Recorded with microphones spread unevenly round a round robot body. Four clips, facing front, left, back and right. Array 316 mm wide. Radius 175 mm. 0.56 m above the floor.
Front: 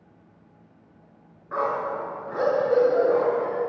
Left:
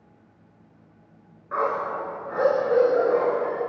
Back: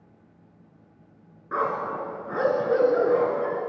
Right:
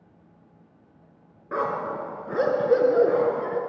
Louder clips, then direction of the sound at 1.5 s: Left 2 dB, front 1 dB; 130° right.